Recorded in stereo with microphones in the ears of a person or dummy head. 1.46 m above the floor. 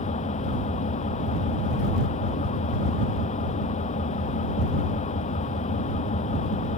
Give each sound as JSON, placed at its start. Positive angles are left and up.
{"t": 0.0, "sound": "an engine running", "side_deg": 35}